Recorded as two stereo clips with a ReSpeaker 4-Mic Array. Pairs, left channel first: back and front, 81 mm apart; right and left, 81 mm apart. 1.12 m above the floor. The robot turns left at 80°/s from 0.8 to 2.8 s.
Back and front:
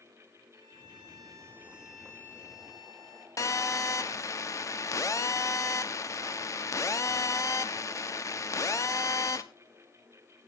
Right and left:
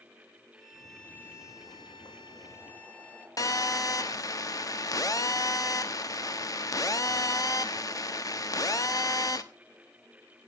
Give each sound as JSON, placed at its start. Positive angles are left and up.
{"t": 0.5, "sound": "a violin", "azimuth_deg": 0, "distance_m": 1.8}
{"t": 3.4, "sound": "a phone buzzing", "azimuth_deg": -130, "distance_m": 1.0}